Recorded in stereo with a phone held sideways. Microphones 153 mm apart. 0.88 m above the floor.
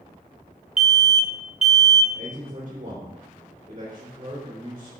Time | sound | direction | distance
0.8 | an alarm | 50° right (ahead or behind) | 0.6 m
2.1 | a man speaking | 50° right (ahead or behind) | 3 m